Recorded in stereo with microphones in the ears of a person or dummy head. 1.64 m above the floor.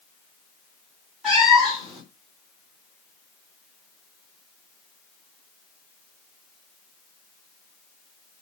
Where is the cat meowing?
5° right (ahead or behind), 1.5 m.